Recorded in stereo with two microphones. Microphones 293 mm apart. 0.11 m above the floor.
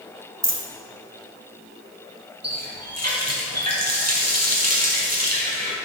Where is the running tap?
60° right (ahead or behind), 2.5 m.